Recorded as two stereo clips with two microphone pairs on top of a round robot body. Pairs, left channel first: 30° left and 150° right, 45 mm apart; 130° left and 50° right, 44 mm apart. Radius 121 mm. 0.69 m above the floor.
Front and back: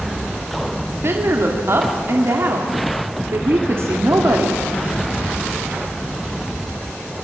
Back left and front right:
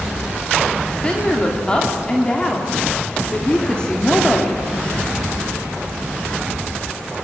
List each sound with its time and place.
0.9 s a woman speaking: 160° right, 2.5 m